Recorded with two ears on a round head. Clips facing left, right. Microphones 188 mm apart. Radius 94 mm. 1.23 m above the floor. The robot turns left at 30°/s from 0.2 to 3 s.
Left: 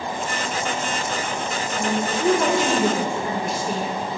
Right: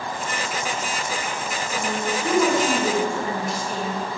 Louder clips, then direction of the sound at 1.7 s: Left 2 dB; 145° left.